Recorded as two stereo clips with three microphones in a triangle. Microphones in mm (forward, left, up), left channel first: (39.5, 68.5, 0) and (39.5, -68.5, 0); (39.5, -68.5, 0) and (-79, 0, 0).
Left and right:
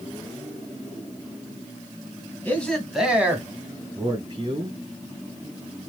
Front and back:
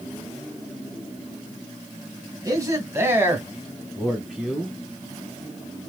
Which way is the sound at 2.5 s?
150° left.